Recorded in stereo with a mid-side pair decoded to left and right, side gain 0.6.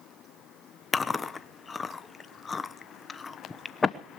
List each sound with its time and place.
0.9 s chewing: 25° left, 1.0 m